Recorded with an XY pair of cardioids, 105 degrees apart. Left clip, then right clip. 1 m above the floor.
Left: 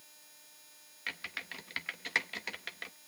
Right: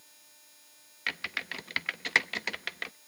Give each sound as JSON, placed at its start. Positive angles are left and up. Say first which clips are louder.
{"t": 1.1, "sound": "typing on a keyboard", "louder": "right 6 dB", "azimuth_deg": -45, "distance_m": 0.6}